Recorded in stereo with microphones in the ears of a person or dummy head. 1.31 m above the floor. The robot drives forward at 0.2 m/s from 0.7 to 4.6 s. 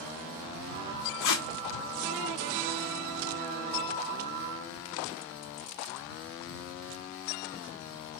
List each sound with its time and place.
1.2 s tape being pulled: 65° left (ahead or behind), 0.6 m; by 1.5 s 60° left (ahead or behind), 0.6 m